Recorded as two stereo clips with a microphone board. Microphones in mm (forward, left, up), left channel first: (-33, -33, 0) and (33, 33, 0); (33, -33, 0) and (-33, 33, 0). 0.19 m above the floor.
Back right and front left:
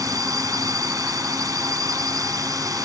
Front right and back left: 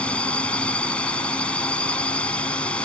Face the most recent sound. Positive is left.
turn(degrees=25)